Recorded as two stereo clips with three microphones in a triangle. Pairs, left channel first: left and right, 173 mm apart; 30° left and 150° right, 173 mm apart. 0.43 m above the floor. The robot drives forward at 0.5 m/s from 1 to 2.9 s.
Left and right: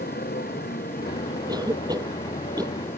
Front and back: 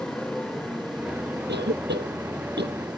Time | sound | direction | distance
0.0 | a motorcycle | 115° left | ?
1.5 | a cough | 160° right | ?